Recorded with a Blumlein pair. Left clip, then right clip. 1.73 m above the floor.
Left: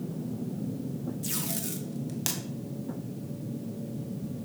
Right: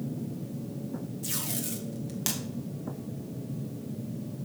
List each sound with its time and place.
1.2 s tape being pulled: straight ahead, 1.9 m